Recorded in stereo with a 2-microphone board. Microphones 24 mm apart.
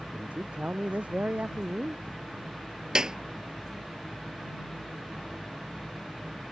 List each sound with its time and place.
0.1 s a man speaking: 75° right (ahead or behind); by 2.0 s 70° right (ahead or behind)
3.0 s a clap: 30° right (ahead or behind)